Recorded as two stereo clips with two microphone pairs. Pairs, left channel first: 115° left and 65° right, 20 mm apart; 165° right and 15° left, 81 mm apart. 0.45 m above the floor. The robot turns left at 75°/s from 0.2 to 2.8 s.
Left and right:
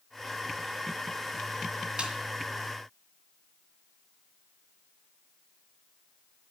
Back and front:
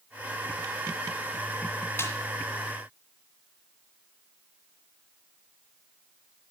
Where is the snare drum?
105° right, 1.9 m; by 2.1 s 115° right, 1.9 m.